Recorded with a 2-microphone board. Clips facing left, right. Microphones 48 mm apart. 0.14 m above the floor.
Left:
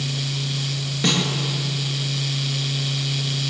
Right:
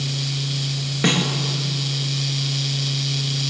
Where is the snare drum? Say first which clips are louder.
Right 2 dB; 30° right (ahead or behind), 3 m.